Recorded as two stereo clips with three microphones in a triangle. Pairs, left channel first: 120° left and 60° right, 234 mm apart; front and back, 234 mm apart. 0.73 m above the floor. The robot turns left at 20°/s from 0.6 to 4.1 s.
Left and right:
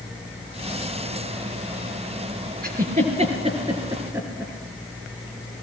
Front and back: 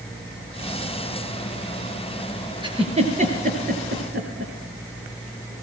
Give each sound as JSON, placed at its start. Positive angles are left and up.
{"t": 2.6, "sound": "a giggle", "azimuth_deg": -110, "distance_m": 3.5}